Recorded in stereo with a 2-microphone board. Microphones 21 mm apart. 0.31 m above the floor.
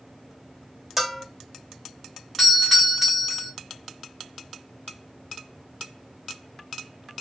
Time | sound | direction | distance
1.0 | a bell | 5° right (ahead or behind) | 0.5 m
2.4 | a doorbell | 5° right (ahead or behind) | 1.7 m